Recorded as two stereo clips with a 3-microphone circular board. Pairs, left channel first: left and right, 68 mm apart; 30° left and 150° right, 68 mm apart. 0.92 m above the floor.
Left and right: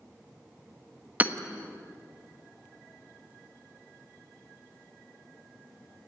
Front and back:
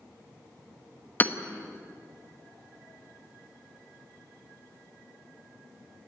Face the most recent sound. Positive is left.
turn(degrees=-25)